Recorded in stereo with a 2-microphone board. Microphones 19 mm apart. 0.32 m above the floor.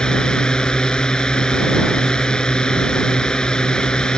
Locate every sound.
0.0 s a drone: 40° left (ahead or behind)